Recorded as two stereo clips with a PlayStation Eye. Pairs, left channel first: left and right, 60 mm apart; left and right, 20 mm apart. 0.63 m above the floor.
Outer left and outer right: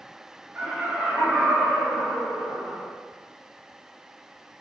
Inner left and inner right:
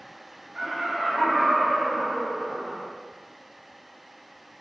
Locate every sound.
0.6 s laughter: 25° right (ahead or behind), 1.0 m